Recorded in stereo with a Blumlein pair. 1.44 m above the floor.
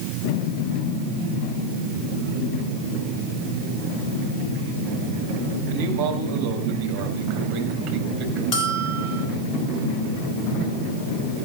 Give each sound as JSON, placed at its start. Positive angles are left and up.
{"t": 5.7, "sound": "a man speaking", "azimuth_deg": -55, "distance_m": 7.0}
{"t": 8.5, "sound": "a bell", "azimuth_deg": 35, "distance_m": 6.5}